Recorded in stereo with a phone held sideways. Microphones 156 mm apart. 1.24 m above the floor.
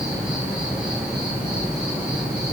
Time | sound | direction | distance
0.0 | an insect | 5° right (ahead or behind) | 4.5 m